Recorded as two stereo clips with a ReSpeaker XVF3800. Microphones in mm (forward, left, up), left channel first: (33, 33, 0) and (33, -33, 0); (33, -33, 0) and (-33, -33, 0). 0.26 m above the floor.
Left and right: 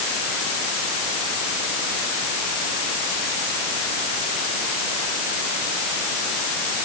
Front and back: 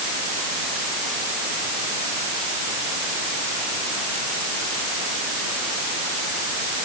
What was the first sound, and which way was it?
Only background noise.